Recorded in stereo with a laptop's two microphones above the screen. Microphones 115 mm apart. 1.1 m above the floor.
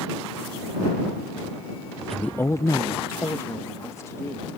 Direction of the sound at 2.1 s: 5° left (ahead or behind).